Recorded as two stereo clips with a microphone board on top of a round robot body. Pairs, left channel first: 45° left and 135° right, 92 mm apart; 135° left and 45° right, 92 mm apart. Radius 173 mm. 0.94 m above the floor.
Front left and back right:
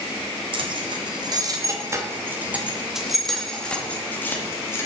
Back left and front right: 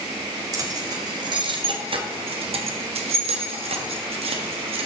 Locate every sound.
0.5 s keys jangling: 100° right, 1.6 m; by 4.9 s 20° right, 1.9 m